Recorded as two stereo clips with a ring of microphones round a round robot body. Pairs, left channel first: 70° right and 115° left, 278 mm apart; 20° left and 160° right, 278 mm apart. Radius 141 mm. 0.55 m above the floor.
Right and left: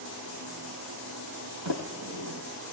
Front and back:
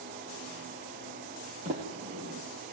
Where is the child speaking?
I don't hear a child speaking.